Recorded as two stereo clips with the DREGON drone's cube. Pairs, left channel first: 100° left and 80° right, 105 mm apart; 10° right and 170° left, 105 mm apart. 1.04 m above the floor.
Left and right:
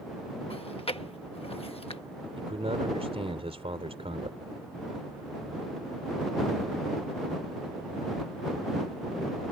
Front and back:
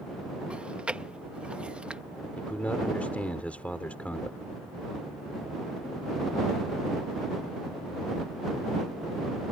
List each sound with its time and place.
0.5 s chewing: 90° left
2.4 s a man speaking: 85° right